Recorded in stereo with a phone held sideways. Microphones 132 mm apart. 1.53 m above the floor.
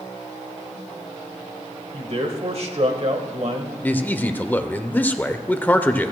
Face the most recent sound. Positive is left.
turn(degrees=15)  # may be behind; listen again after turning